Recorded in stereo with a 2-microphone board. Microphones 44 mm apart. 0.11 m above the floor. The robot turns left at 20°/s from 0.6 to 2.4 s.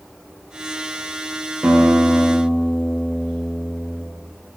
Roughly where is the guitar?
Right.